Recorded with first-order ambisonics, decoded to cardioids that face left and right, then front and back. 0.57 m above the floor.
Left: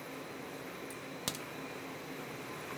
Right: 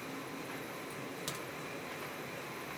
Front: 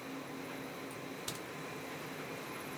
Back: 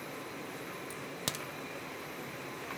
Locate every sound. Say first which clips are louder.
0.9 s a crack: even, back 4 dB; 165° left, 0.5 m